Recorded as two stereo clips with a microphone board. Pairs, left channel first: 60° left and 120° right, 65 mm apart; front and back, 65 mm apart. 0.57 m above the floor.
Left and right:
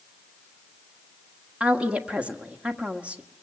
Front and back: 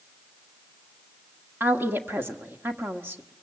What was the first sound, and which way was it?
A woman speaking, 175° right.